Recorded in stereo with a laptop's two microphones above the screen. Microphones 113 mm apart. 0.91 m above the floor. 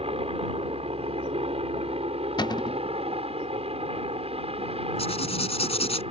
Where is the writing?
65° left (ahead or behind).